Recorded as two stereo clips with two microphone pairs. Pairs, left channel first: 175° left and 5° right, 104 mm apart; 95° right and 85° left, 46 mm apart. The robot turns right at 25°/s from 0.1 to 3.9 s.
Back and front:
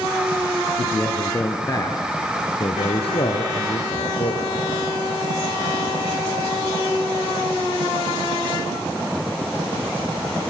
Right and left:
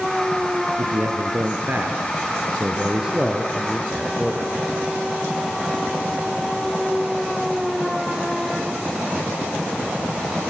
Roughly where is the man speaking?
Left.